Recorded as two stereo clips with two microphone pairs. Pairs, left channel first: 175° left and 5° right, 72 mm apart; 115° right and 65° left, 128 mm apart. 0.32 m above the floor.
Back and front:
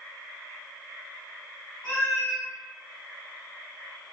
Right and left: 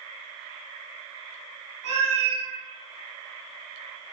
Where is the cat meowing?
120° right, 1.3 m.